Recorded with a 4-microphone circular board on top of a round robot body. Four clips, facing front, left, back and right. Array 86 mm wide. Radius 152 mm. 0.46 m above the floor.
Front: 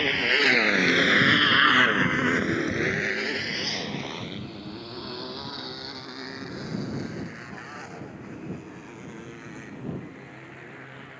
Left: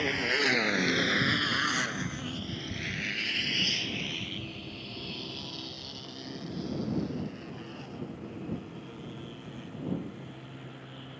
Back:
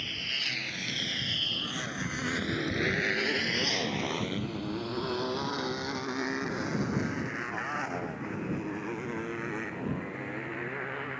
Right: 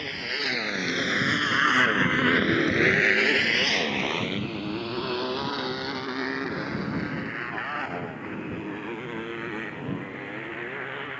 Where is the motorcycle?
15° left; by 11.2 s 120° right.